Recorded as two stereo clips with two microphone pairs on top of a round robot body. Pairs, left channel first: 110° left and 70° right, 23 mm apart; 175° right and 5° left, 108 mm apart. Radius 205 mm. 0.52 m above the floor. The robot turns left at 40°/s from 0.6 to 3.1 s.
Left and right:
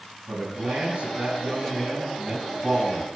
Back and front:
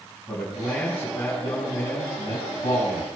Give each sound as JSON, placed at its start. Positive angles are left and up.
{"t": 0.3, "sound": "a man speaking", "azimuth_deg": -85, "distance_m": 6.5}